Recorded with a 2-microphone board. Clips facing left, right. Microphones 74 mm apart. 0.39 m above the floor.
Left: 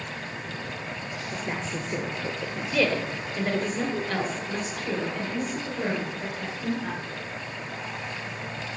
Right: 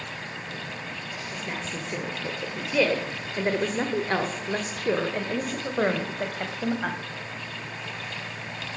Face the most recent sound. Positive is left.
turn(degrees=-60)  # may be behind; listen again after turning